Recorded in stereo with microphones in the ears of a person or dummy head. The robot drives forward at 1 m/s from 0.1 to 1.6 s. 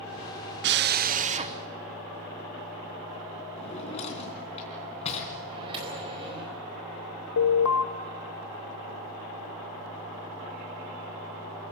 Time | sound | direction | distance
0.6 | a drill | 55° right (ahead or behind) | 0.7 m
3.6 | a drawer | 30° left (ahead or behind) | 3.5 m
5.5 | a microwave | 30° right (ahead or behind) | 4.5 m
7.4 | an alarm | 80° left | 1.3 m